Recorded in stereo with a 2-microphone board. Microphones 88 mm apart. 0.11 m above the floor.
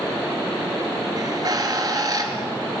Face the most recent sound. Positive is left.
turn(degrees=-45)  # may be behind; listen again after turning